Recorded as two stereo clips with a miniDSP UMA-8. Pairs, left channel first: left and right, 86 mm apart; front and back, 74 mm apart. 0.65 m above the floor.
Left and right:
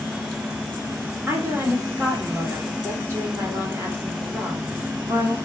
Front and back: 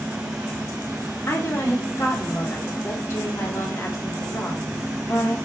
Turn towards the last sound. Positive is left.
turn(degrees=-45)